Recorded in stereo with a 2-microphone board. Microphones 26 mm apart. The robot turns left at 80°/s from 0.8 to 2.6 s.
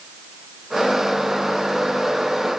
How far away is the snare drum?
I don't hear a snare drum.